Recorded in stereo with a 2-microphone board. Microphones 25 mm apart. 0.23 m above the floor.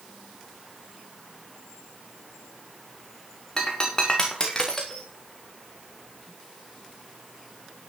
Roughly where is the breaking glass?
Left.